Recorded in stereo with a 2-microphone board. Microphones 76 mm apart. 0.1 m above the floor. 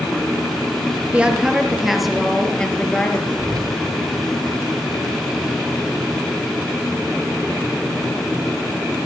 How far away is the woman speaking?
About 1.7 m.